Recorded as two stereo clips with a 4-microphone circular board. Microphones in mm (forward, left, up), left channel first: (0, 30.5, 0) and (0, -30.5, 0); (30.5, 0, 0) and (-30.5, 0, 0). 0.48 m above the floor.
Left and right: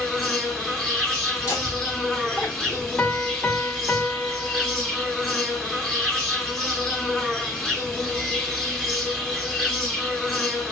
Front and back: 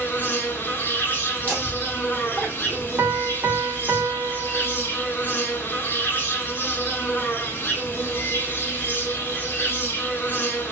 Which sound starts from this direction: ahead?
An insect, at 0.0 s.